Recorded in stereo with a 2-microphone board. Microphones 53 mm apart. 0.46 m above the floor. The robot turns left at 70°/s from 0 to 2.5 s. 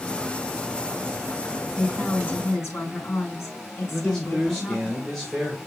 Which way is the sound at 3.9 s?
5° left (ahead or behind).